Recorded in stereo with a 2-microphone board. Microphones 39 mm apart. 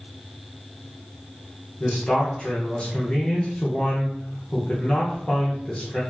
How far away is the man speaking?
About 0.7 m.